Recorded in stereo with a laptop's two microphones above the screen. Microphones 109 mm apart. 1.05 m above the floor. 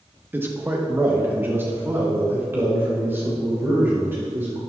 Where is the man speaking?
20° right (ahead or behind), 0.9 m.